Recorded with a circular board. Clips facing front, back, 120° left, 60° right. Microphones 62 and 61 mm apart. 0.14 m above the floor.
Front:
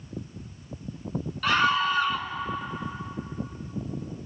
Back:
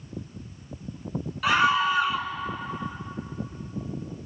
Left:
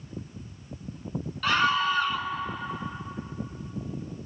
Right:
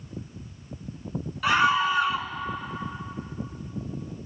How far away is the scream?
About 1.2 m.